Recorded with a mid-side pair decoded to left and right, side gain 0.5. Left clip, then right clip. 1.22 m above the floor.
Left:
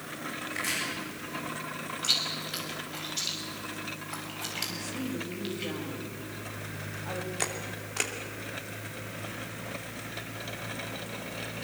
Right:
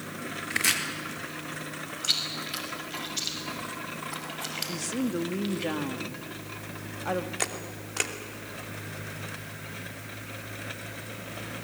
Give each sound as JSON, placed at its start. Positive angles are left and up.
{"t": 0.5, "sound": "chopping", "azimuth_deg": -65, "distance_m": 4.0}
{"t": 2.0, "sound": "chewing", "azimuth_deg": -10, "distance_m": 6.0}
{"t": 4.7, "sound": "a woman speaking", "azimuth_deg": -55, "distance_m": 2.0}
{"t": 7.4, "sound": "a camera shutter", "azimuth_deg": -10, "distance_m": 2.5}